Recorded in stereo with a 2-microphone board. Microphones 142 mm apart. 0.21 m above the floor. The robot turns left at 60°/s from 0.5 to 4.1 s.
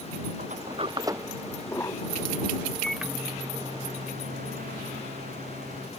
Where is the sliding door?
60° right (ahead or behind); by 2.7 s 75° left (ahead or behind).